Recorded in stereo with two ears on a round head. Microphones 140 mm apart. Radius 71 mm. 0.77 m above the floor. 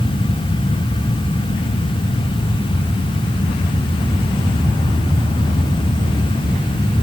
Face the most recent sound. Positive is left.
No sound to turn to.